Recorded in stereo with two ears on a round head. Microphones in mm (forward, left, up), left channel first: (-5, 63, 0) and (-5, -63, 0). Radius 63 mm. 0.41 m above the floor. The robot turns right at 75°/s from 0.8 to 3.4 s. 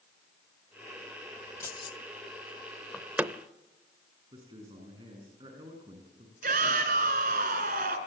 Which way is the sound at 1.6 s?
20° left (ahead or behind).